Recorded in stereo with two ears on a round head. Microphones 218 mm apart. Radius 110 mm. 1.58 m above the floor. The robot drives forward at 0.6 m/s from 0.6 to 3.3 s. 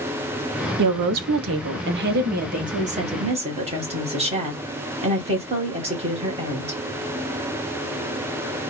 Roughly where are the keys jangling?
No keys jangling in this recording.